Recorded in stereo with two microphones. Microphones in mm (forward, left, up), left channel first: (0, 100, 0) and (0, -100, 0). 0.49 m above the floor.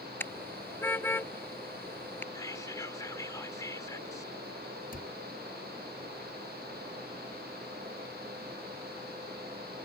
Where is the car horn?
10° left (ahead or behind).